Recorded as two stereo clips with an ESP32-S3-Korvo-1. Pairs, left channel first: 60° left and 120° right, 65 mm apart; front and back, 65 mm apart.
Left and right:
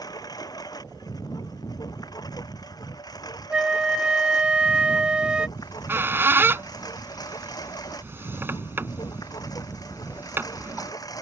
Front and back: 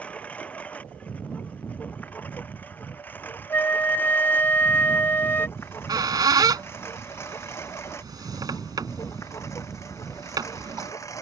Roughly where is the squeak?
Behind.